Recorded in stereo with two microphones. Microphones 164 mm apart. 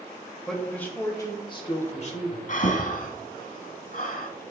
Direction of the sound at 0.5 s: 5° left (ahead or behind).